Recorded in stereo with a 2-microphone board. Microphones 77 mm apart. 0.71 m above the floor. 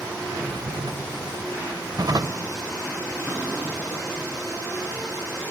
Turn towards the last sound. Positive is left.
turn(degrees=-35)  # may be behind; listen again after turning